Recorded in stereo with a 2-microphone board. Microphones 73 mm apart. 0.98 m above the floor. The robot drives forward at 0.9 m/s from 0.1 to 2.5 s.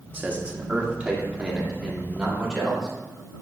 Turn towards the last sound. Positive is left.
turn(degrees=-10)  # may be behind; listen again after turning